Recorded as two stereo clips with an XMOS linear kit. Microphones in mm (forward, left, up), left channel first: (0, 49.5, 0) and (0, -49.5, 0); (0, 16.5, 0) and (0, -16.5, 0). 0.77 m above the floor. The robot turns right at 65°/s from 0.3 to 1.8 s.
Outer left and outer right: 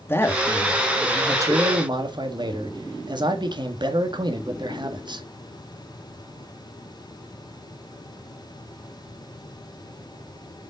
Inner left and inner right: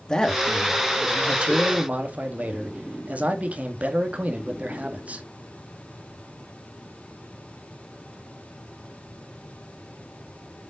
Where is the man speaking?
150° left, 1.7 m; by 5.2 s 110° right, 1.7 m.